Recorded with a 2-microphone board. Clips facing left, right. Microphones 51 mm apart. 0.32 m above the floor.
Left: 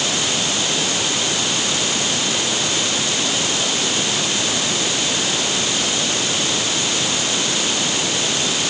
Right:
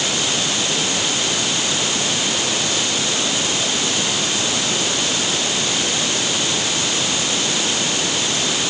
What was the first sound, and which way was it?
Only background noise.